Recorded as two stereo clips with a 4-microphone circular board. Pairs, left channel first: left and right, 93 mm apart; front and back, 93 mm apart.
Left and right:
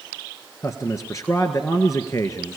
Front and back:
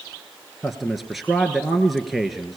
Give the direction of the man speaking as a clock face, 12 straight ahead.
9 o'clock.